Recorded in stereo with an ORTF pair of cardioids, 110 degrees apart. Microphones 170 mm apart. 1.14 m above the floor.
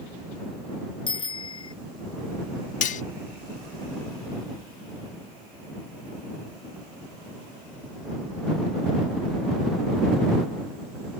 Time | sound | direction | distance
1.1 | a bicycle bell | 30° left | ?
2.8 | cutlery clinking | 50° left | ?